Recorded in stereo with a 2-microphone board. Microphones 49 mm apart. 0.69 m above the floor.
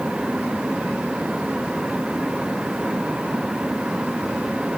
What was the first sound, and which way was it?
Only background noise.